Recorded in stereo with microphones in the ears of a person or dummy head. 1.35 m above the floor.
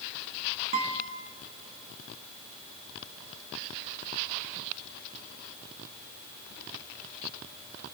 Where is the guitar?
35° right (ahead or behind), 2 m.